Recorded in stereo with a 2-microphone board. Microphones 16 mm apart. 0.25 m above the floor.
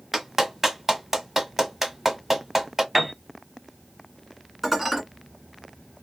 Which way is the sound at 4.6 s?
15° right (ahead or behind).